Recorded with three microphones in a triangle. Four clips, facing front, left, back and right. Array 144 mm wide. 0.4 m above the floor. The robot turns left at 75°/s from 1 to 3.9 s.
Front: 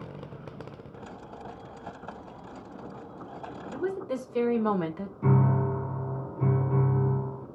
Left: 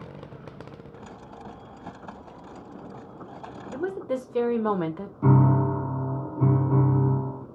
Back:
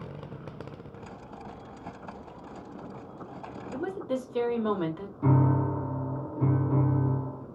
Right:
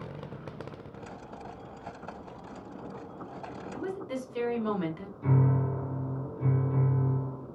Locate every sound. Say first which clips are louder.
3.7 s a woman speaking: left 7 dB, even; 90° left, 1.0 m; by 5.1 s 80° left, 1.0 m
5.2 s a piano: left 7 dB, back 1 dB; 85° left, 0.8 m